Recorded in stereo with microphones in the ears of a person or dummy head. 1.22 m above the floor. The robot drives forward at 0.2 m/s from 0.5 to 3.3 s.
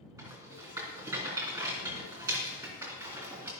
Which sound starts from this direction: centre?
A rattle, at 0.2 s.